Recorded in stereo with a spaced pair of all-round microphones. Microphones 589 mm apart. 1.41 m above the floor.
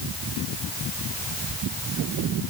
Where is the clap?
No clap in this recording.